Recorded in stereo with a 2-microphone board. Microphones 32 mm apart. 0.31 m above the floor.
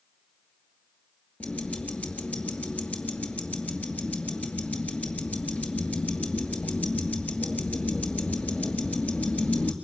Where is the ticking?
45° left (ahead or behind), 2.5 m.